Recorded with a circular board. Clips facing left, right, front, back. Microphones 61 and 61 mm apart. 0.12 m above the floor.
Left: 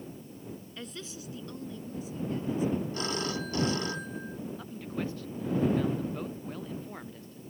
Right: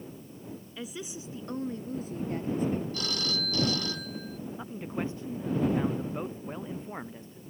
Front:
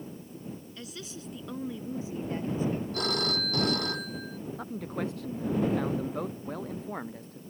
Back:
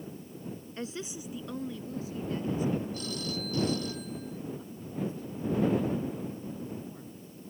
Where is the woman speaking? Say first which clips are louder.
Right 6 dB, back 4 dB; 170° right; by 2.8 s 50° right.